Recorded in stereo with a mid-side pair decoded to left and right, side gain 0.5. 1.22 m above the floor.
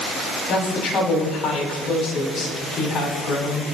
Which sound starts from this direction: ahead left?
A woman speaking, at 0.5 s.